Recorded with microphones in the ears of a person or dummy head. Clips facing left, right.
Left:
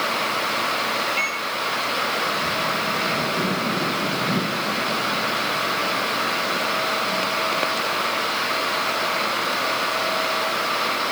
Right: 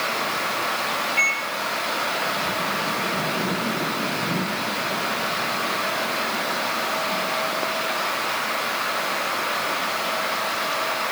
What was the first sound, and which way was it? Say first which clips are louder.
A microwave: left 1 dB; 10° right (ahead or behind).